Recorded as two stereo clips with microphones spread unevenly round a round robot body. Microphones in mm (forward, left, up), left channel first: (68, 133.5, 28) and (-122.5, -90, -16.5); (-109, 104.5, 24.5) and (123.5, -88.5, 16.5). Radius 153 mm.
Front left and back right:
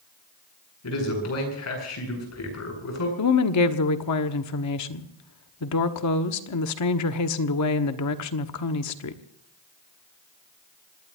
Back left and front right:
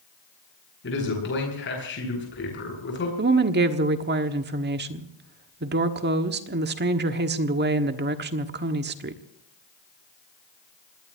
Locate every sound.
0.8 s a man speaking: 85° left, 9 m
3.2 s a woman speaking: 15° left, 1.3 m